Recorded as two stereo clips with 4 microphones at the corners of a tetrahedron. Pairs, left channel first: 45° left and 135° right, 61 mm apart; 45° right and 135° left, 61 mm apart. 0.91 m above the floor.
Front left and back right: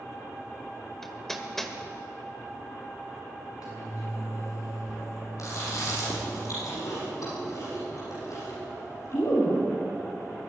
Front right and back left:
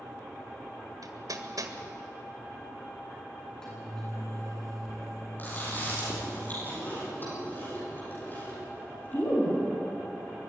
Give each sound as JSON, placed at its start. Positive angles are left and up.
{"t": 1.0, "sound": "hammering", "azimuth_deg": 130, "distance_m": 1.8}
{"t": 3.4, "sound": "a microwave", "azimuth_deg": 40, "distance_m": 9.5}
{"t": 5.4, "sound": "chewing", "azimuth_deg": 15, "distance_m": 10.0}